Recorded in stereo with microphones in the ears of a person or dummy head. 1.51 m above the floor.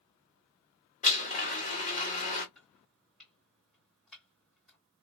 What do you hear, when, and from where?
1.0 s a blender: 45° left (ahead or behind), 1.2 m
2.5 s chopping: centre (ahead or behind), 2.5 m